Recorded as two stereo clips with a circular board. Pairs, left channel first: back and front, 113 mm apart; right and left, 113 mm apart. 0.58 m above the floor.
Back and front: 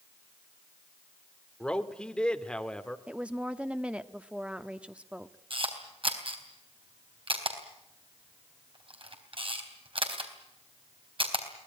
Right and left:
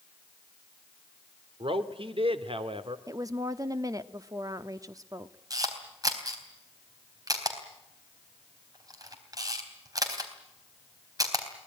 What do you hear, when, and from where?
1.6 s a man speaking: 100° left, 1.8 m
3.1 s a woman speaking: 70° left, 1.0 m
5.5 s a camera shutter: 35° left, 3.5 m